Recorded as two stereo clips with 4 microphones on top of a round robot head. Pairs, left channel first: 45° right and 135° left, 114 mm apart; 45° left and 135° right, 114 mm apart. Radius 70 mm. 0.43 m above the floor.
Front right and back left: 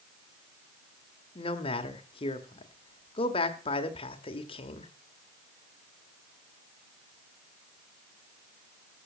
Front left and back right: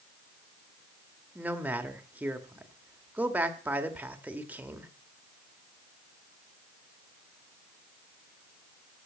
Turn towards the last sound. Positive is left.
turn(degrees=-60)